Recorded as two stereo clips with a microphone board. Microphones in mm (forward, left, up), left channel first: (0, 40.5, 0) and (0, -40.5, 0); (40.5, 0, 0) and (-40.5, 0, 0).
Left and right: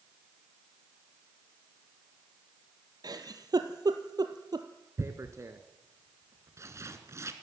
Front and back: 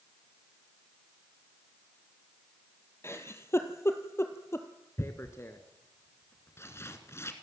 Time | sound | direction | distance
3.0 | a giggle | 55° right | 1.6 m
5.0 | tearing paper | 50° right | 1.8 m